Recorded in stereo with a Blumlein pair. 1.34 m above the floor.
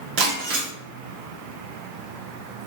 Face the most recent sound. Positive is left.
turn(degrees=-40)